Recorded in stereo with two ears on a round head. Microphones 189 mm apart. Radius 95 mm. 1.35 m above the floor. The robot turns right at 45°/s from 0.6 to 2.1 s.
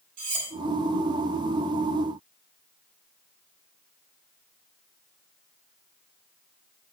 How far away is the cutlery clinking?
About 4 m.